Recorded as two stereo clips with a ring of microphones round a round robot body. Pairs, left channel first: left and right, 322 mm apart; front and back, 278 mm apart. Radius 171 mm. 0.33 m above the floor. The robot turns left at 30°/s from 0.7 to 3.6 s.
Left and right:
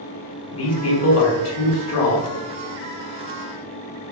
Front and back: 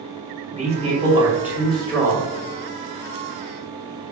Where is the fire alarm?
No fire alarm in this recording.